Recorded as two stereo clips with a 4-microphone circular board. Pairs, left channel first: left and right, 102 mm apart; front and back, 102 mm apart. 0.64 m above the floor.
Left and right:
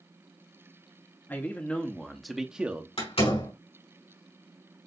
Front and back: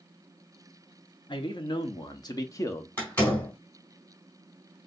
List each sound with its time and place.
1.3 s a man speaking: 25° left, 1.1 m; by 2.9 s 40° right, 0.7 m
3.0 s a door slam: 75° left, 4 m